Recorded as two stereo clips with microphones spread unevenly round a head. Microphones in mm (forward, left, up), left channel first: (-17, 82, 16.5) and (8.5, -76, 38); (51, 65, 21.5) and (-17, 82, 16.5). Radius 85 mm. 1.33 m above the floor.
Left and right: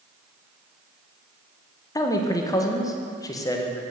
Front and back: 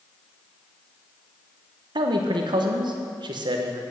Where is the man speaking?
165° left, 1.1 m.